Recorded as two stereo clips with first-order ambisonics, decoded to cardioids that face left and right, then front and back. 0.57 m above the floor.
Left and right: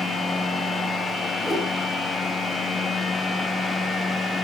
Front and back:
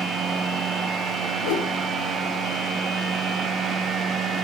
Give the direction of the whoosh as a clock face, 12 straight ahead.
12 o'clock.